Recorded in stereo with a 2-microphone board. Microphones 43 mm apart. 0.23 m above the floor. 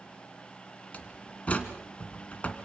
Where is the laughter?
I don't hear laughter.